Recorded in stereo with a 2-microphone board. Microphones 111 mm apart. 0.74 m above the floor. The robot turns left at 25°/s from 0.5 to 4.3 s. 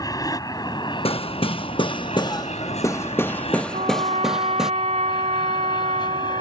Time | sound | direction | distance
0.0 | an aircraft | 35° left (ahead or behind) | ?
1.1 | hammering | 75° left | ?
3.7 | a trumpet | 85° right | ?